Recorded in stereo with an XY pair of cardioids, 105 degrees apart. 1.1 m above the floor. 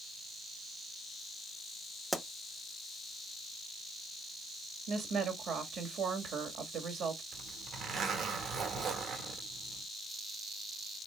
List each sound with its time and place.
2.1 s a pop: 10° right, 0.7 m
4.9 s a woman speaking: 65° right, 2.0 m
7.3 s a zipper: 65° right, 1.5 m